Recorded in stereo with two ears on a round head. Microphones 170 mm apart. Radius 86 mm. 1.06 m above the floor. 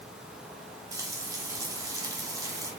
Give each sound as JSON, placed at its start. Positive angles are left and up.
{"t": 0.9, "sound": "frying", "side_deg": -20, "distance_m": 3.5}